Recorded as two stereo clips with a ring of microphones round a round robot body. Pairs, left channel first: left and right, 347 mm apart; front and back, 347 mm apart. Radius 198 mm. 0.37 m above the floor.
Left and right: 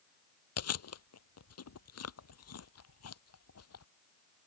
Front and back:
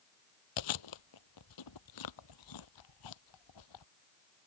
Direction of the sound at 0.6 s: 40° left.